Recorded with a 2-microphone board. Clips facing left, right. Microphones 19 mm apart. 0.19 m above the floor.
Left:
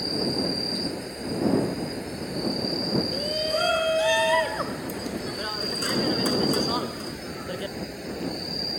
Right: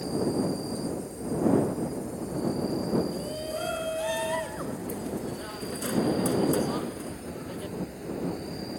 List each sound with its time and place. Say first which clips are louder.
0.0 s an insect: left 2 dB; 55° left (ahead or behind)
3.1 s a shout: left 7 dB; 40° left (ahead or behind)